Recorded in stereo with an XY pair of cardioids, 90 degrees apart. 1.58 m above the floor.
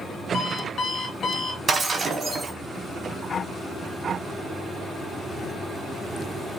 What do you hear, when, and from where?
0.3 s an alarm clock: 60° left, 2.5 m
1.7 s breaking glass: 45° right, 2 m